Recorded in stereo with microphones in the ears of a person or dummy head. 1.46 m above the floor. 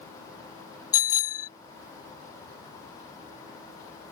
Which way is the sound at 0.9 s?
25° left (ahead or behind).